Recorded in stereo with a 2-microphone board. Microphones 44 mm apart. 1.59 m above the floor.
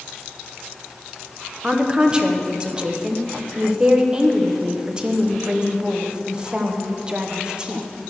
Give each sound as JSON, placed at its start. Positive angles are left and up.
{"t": 1.6, "sound": "a woman speaking", "side_deg": -20, "distance_m": 0.8}